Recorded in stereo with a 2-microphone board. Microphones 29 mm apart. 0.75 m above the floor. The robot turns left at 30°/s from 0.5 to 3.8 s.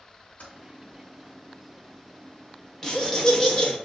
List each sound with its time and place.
0.4 s typing on a keyboard: 80° left, 2.5 m; by 0.5 s 85° left, 2.5 m
2.8 s laughter: 20° left (ahead or behind), 0.9 m; by 3.8 s 25° left (ahead or behind), 0.9 m